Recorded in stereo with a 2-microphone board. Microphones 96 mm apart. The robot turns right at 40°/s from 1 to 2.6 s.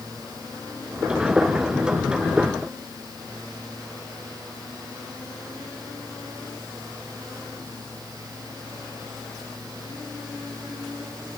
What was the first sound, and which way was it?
Only background noise.